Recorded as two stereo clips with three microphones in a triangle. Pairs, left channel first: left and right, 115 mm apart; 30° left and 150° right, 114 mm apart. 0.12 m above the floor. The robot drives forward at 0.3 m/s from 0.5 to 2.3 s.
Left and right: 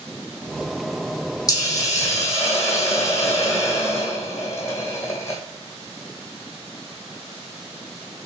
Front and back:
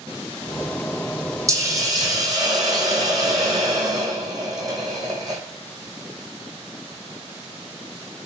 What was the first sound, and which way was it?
A hiss, 150° left.